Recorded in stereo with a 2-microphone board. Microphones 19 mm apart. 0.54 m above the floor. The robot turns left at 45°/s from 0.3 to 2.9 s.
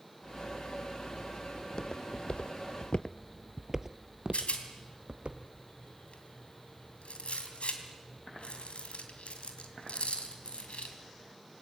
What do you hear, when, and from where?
1.6 s footsteps: 30° left (ahead or behind), 1.7 m; by 5.3 s 65° right (ahead or behind), 1.9 m
4.3 s a rattle: 80° left, 3 m